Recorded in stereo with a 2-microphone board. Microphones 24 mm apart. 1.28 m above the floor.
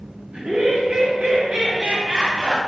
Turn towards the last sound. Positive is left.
turn(degrees=-40)  # may be behind; listen again after turning